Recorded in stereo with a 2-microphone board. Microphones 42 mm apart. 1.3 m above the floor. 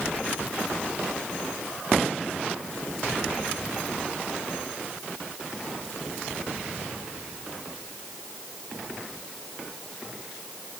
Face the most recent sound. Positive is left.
No sound to turn to.